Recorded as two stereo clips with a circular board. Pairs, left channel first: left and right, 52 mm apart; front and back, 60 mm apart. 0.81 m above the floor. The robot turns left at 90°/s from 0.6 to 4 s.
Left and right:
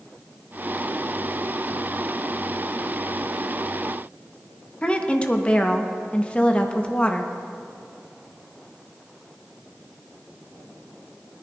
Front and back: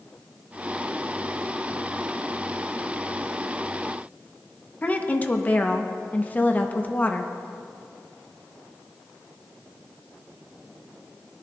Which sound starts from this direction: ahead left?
A woman speaking, at 4.8 s.